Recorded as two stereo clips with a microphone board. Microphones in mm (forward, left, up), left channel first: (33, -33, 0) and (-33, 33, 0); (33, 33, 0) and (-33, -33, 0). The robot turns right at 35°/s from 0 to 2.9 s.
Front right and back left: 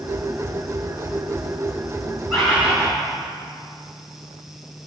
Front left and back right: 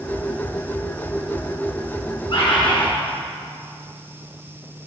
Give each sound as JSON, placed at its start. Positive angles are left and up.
{"t": 2.3, "sound": "a bird", "azimuth_deg": 40, "distance_m": 2.5}